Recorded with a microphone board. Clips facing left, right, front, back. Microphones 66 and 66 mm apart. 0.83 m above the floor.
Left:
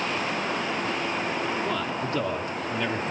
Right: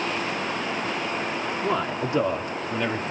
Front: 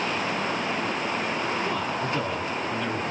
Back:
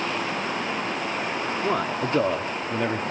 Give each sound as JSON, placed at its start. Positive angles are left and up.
{"t": 1.6, "sound": "a man speaking", "azimuth_deg": -155, "distance_m": 2.0}